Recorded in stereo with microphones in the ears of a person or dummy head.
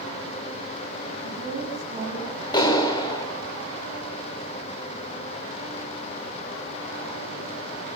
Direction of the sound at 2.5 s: 30° left (ahead or behind).